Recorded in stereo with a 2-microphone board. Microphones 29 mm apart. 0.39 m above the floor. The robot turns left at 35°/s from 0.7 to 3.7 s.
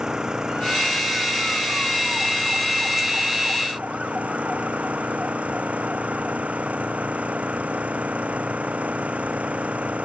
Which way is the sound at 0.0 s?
25° right.